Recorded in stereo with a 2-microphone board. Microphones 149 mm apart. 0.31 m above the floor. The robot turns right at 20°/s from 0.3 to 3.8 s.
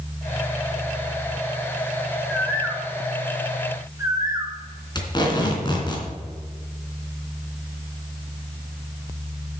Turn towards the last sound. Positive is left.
turn(degrees=30)  # may be behind; listen again after turning